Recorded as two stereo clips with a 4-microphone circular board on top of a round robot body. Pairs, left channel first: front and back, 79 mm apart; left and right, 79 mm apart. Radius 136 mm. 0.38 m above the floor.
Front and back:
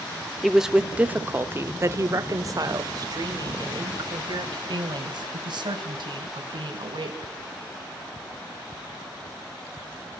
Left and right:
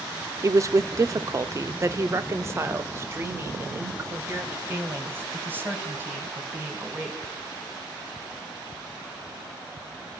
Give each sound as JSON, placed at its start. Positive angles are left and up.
{"t": 0.4, "sound": "a woman speaking", "azimuth_deg": -90, "distance_m": 1.0}